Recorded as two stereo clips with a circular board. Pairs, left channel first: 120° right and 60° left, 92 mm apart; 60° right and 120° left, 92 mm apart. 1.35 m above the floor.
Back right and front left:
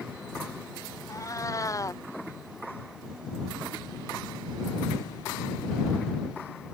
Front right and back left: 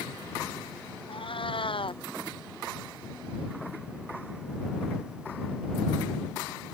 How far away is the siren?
I don't hear a siren.